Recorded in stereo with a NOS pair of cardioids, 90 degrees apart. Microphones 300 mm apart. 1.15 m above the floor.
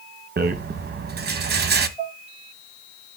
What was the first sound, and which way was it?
A rattle, 30° right.